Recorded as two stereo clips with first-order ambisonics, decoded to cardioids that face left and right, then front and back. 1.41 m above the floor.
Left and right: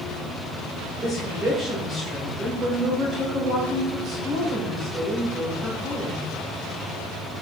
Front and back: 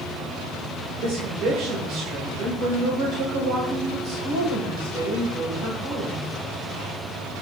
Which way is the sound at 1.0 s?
165° right.